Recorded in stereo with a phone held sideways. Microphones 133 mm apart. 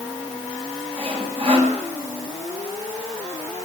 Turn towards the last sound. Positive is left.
turn(degrees=-45)  # may be behind; listen again after turning